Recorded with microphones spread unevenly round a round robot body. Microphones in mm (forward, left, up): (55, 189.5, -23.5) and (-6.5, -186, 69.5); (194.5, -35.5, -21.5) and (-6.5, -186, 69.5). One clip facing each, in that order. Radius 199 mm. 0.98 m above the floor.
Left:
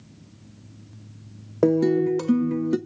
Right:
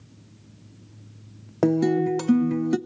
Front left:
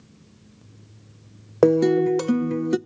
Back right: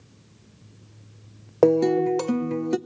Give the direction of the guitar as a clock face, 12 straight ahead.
1 o'clock.